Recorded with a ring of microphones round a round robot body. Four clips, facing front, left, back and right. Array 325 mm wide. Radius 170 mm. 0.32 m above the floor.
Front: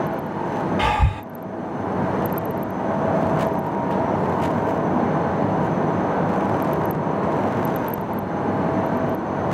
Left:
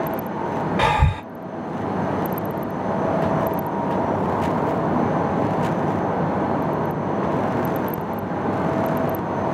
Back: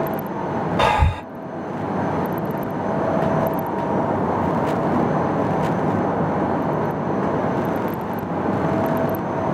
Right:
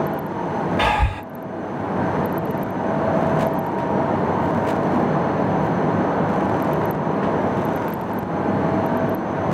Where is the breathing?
160° left, 1.7 m.